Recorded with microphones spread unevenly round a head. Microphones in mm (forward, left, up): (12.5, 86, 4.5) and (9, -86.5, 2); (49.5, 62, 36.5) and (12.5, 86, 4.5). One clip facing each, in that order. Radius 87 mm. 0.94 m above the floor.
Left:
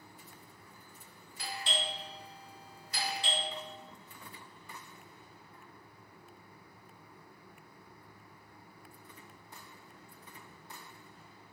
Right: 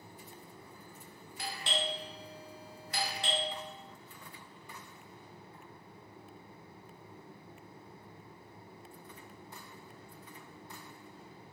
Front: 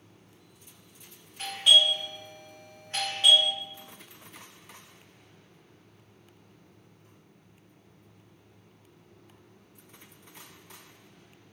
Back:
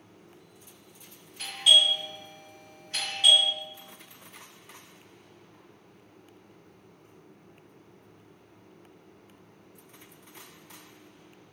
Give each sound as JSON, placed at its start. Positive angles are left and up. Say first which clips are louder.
{"t": 1.4, "sound": "a doorbell", "louder": "right 2 dB, even", "azimuth_deg": -120, "distance_m": 1.1}